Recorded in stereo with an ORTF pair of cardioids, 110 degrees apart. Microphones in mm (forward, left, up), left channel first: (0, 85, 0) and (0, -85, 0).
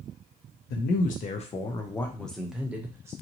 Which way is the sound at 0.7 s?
70° left.